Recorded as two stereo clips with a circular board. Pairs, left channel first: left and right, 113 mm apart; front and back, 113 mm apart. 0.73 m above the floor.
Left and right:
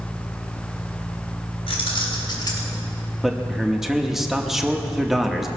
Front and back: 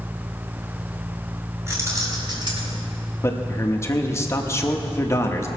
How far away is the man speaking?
About 1.0 m.